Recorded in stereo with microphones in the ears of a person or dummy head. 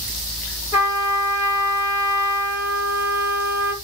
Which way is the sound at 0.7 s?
15° right (ahead or behind).